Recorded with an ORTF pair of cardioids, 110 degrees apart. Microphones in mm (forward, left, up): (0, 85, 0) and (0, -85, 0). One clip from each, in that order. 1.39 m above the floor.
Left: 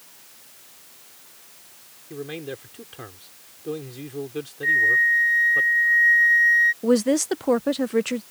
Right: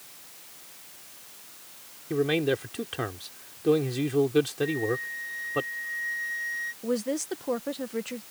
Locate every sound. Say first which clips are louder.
2.1 s a man speaking: right 8 dB; 45° right
4.6 s a flute: left 12 dB; 45° left
6.8 s a woman speaking: left 9 dB; 45° left